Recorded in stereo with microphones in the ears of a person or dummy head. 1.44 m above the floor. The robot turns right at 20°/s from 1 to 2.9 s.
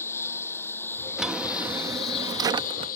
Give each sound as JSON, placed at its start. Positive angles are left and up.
{"t": 0.0, "sound": "a lawn mower", "side_deg": 15}
{"t": 1.2, "sound": "a drawer", "azimuth_deg": 175}